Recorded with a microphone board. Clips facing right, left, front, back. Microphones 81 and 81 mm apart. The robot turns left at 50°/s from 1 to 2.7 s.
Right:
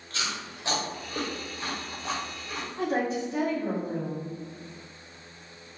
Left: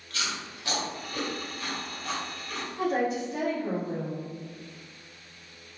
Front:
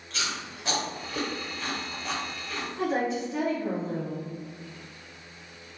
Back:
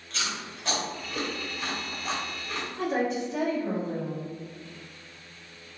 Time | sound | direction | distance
0.1 | chewing | 75° right | 0.8 m
2.8 | a woman speaking | 50° right | 1.7 m